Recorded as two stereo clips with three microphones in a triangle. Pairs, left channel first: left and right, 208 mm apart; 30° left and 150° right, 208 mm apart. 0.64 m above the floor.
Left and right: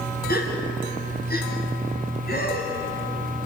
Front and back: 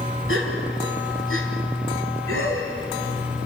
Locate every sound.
0.3 s a gasp: 45° left, 3 m